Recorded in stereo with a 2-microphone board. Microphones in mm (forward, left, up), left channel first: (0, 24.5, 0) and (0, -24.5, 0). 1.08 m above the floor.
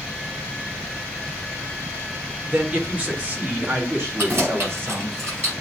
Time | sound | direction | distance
2.5 | a man speaking | 20° right (ahead or behind) | 1.5 m
4.2 | keys jangling | 55° right (ahead or behind) | 4.5 m